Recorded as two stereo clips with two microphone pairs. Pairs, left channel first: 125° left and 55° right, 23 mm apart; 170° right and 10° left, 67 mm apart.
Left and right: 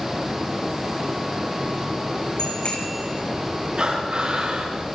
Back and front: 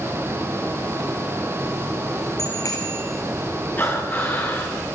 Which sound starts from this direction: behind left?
A bicycle bell, at 2.4 s.